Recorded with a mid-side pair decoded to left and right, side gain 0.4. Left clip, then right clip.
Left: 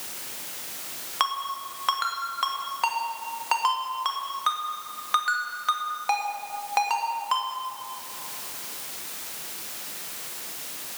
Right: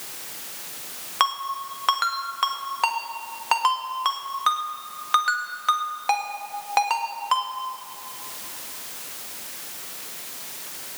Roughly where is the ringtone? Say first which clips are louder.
Right 3 dB; ahead right.